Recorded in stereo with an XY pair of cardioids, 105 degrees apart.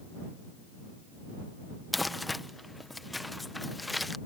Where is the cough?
I don't hear a cough.